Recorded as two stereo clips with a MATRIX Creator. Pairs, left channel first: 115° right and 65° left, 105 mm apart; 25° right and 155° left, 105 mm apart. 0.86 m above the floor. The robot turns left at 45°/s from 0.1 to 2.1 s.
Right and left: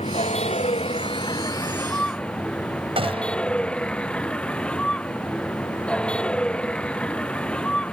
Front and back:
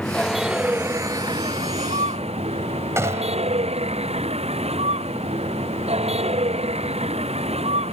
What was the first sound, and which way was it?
A vehicle, 100° right.